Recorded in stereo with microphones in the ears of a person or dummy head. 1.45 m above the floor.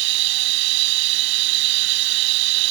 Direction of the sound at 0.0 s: 65° right (ahead or behind).